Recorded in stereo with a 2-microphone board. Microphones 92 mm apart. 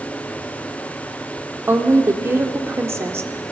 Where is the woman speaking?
30° right (ahead or behind), 1.8 m.